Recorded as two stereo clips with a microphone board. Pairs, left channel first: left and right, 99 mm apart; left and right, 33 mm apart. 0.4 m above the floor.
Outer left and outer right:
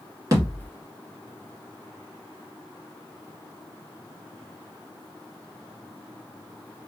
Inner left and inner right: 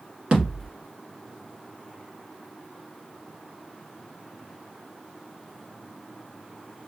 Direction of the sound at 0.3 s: 40° right (ahead or behind).